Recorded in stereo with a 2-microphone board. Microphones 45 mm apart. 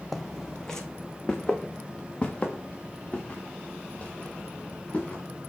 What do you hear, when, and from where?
0.1 s footsteps: centre (ahead or behind), 0.9 m; by 5.2 s 25° left (ahead or behind), 4 m